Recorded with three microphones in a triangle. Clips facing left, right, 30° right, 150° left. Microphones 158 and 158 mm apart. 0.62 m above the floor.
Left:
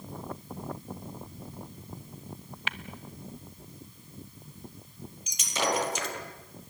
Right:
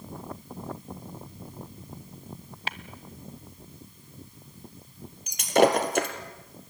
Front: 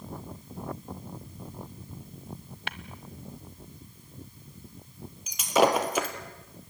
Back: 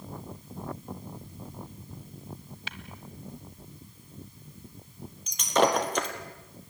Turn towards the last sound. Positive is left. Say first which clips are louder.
# right 10 dB, front 1 dB
turn(degrees=-115)